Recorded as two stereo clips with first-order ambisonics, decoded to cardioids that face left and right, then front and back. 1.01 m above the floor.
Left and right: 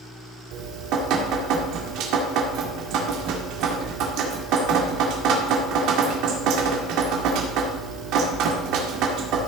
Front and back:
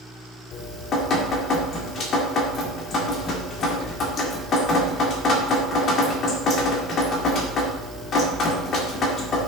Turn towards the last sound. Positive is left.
turn(degrees=-55)